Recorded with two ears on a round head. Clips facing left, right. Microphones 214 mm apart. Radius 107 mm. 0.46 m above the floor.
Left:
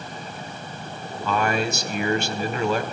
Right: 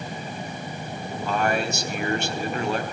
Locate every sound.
1.2 s a man speaking: 65° left (ahead or behind), 3.5 m